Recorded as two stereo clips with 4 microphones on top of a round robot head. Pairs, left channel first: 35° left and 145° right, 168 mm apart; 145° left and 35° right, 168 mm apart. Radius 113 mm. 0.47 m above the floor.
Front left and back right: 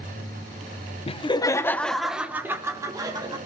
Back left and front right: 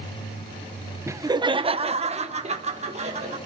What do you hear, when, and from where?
1.1 s laughter: 25° left, 0.8 m; by 3.4 s 80° right, 1.7 m